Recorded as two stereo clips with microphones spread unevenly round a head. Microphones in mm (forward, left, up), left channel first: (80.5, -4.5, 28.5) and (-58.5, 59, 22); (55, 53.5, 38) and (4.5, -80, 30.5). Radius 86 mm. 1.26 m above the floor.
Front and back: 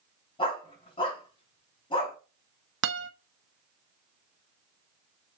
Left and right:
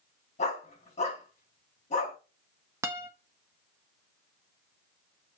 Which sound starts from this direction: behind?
A guitar, at 2.8 s.